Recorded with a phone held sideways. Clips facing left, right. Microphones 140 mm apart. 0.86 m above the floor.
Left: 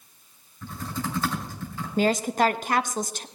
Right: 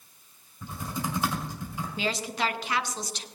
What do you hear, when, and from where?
0.6 s typing on a keyboard: 15° right (ahead or behind), 2 m
2.0 s a woman speaking: 45° left (ahead or behind), 0.6 m